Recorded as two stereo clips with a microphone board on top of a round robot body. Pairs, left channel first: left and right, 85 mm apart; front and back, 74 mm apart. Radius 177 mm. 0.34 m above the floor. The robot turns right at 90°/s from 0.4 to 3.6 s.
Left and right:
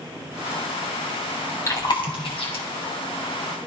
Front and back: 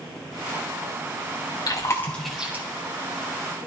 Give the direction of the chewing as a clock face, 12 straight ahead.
11 o'clock.